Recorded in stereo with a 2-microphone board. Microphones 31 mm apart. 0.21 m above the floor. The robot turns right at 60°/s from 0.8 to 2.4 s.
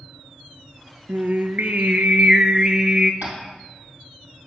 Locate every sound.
1.1 s singing: 105° right, 0.7 m; by 3.1 s 25° right, 0.7 m
3.2 s tapping: 75° right (ahead or behind), 3.5 m